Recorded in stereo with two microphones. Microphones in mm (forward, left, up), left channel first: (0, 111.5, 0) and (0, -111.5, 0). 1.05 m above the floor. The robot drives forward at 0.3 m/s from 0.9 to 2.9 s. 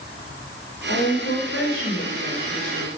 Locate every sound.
0.9 s a woman speaking: 80° left, 5.5 m; by 2.9 s 75° left (ahead or behind), 5.5 m